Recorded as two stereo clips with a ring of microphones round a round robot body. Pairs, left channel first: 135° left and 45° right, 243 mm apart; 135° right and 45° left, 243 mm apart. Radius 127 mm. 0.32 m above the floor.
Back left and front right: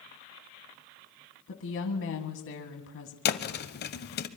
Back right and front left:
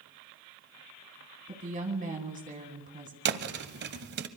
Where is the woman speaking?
100° left, 2 m.